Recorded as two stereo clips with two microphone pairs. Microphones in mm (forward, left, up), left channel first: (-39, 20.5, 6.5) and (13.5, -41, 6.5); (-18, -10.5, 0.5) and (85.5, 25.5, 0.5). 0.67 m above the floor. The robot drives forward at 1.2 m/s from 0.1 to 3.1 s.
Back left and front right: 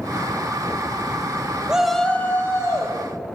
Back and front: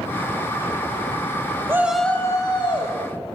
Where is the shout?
15° left, 0.8 m; by 3.0 s 175° left, 1.4 m.